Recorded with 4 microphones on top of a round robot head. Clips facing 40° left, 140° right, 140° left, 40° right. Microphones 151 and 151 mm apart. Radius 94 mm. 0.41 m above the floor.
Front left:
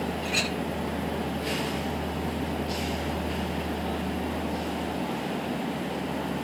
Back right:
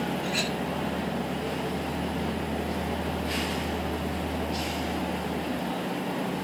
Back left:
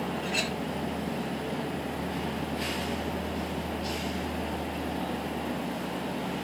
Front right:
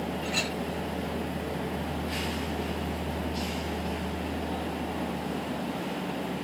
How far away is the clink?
About 2.0 m.